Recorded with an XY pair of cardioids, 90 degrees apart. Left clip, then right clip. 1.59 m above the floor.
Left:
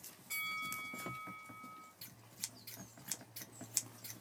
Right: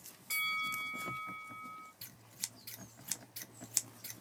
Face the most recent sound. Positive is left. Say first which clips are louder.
# even
turn(degrees=-30)